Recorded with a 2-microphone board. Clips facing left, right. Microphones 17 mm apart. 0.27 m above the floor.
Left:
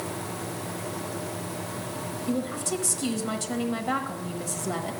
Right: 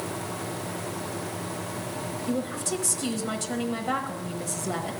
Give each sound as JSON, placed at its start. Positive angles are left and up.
{"t": 2.3, "sound": "a woman speaking", "side_deg": 5, "distance_m": 0.9}